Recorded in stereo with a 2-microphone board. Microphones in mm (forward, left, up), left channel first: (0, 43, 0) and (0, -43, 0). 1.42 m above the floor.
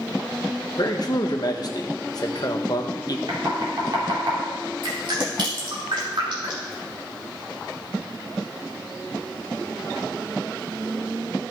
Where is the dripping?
65° right (ahead or behind), 3 m.